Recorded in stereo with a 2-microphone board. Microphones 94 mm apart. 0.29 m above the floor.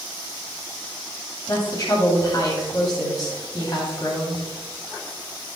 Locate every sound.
1.5 s a woman speaking: 45° left (ahead or behind), 2 m